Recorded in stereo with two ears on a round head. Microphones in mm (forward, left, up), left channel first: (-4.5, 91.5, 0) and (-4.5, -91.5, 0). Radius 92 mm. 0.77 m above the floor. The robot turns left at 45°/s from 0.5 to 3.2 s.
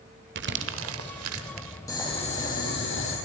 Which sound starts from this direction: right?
Crumpling, at 0.3 s.